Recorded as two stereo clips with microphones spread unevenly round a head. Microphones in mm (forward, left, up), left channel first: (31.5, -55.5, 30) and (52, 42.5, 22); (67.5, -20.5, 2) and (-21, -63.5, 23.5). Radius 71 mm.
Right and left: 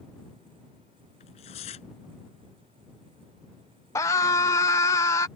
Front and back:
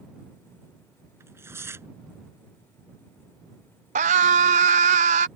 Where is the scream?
170° right.